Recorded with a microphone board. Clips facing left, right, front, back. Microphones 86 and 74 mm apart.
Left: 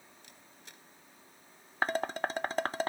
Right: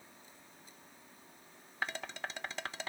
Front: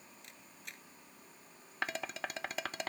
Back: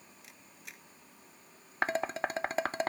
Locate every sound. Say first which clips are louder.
0.2 s a camera shutter: left 1 dB, even; 95° left
1.8 s dishes clattering: left 9 dB, back 7 dB; 130° left